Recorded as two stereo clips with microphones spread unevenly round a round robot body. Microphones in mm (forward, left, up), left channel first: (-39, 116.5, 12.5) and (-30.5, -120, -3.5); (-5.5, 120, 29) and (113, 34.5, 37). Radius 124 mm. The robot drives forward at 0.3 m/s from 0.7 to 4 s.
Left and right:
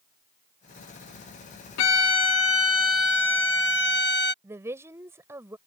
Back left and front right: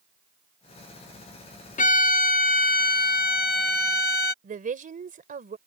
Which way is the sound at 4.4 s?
5° right.